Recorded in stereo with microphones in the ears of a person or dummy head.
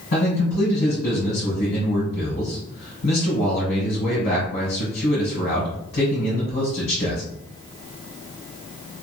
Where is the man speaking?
80° left, 1.6 m.